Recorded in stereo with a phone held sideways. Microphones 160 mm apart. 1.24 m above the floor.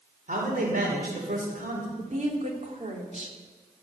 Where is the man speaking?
60° right (ahead or behind), 5.5 m.